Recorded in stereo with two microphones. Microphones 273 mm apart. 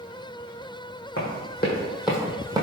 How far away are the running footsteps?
About 1.2 m.